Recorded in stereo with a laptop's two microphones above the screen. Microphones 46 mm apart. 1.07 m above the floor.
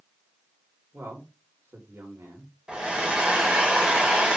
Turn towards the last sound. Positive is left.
turn(degrees=-20)  # may be behind; listen again after turning